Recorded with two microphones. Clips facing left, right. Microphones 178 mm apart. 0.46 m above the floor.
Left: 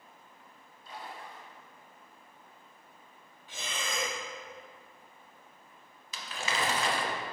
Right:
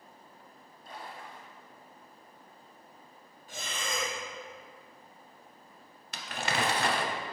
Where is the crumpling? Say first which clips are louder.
Right 2 dB; 65° right (ahead or behind), 0.7 m.